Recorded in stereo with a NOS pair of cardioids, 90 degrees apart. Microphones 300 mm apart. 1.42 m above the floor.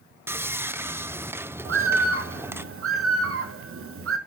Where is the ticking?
No ticking in this recording.